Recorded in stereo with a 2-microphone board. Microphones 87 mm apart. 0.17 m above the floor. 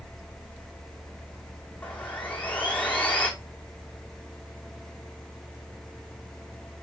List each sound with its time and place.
1.8 s sawing: 20° left (ahead or behind), 1.8 m